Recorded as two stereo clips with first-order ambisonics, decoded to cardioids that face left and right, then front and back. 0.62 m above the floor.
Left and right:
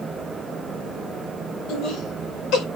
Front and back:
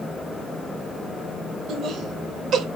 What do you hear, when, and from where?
1.7 s laughter: 125° left, 2.5 m